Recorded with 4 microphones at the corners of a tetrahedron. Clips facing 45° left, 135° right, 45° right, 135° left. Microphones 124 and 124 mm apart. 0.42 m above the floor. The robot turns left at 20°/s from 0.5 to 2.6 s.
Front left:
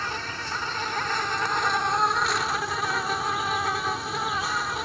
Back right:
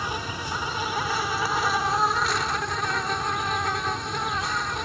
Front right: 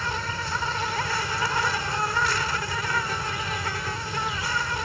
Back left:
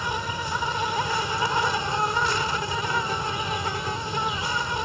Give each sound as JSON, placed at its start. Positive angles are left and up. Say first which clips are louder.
{"t": 0.0, "sound": "an insect", "louder": "back right 2 dB, back left 2 dB", "azimuth_deg": 170}